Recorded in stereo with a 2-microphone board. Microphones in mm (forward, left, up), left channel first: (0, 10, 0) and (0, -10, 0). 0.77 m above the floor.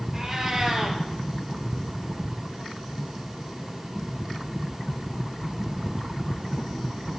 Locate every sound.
0.1 s a cat meowing: 25° right (ahead or behind), 1.6 m